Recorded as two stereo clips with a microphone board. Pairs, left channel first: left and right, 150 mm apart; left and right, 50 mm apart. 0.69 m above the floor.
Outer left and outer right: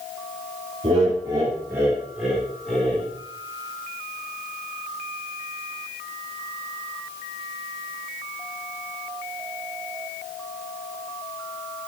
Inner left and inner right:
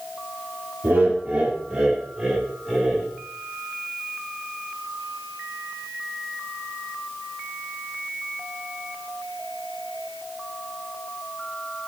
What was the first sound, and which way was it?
Laughter, 40° right (ahead or behind).